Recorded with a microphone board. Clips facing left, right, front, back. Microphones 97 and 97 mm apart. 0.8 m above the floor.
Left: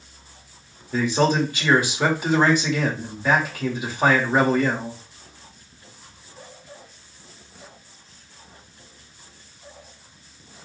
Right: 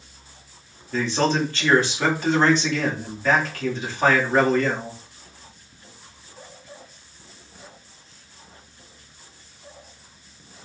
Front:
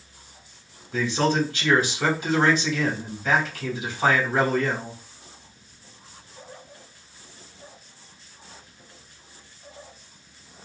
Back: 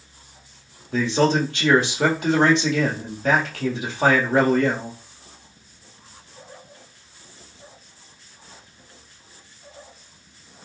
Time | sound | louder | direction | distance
0.9 | a man speaking | left 2 dB, back 3 dB | 165° left | 1.4 m